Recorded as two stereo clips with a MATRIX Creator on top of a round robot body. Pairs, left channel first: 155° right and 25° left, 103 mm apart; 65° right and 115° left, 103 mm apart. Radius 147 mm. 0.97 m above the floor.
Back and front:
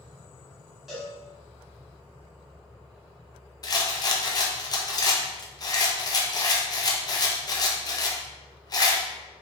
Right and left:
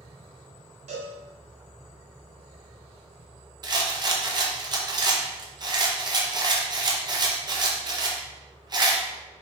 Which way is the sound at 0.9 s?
110° left.